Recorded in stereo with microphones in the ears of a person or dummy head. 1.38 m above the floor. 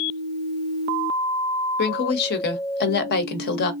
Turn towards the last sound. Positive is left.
turn(degrees=55)  # may be behind; listen again after turning